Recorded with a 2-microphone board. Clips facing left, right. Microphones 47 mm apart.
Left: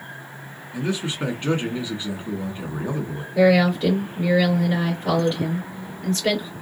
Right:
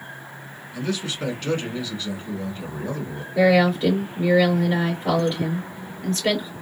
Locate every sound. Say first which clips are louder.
0.7 s a man speaking: left 2 dB; 20° left (ahead or behind), 1.2 m
3.4 s a woman speaking: even; centre (ahead or behind), 2.5 m